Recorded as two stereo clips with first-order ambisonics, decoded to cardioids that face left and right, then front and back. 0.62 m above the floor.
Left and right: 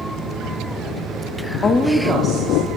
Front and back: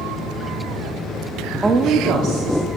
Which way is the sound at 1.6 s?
115° left.